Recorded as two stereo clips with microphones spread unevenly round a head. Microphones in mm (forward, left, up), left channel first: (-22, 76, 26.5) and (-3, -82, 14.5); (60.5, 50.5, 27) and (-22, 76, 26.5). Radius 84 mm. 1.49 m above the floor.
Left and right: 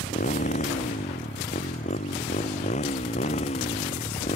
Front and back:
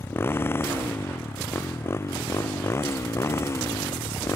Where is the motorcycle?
45° left; by 4.4 s 40° left.